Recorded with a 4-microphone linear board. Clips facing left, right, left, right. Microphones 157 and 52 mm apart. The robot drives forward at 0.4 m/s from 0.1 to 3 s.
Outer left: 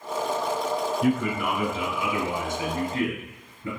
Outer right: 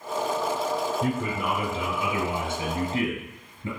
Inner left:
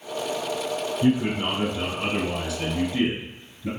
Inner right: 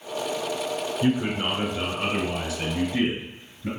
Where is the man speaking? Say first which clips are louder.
Outer left 3 dB, inner left 2 dB; 35° right (ahead or behind), 1.5 m; by 3.7 s 25° right (ahead or behind), 1.9 m.